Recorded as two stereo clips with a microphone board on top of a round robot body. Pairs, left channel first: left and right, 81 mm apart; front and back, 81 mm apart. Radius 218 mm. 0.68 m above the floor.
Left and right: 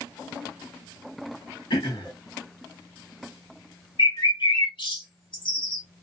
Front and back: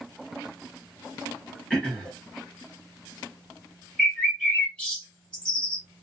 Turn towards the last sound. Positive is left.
turn(degrees=75)